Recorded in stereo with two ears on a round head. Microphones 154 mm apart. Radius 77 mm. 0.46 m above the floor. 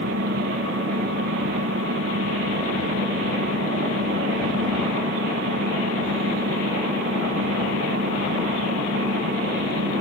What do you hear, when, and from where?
0.0 s an engine running: 80° right